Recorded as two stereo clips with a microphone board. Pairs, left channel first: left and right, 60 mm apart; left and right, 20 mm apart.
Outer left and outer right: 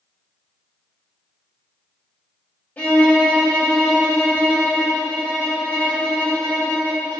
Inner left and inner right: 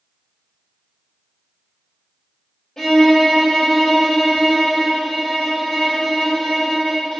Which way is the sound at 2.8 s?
30° left (ahead or behind).